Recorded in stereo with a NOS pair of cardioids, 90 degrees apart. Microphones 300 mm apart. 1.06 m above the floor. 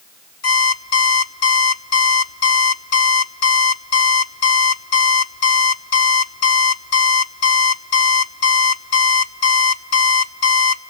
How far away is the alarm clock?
About 1.4 m.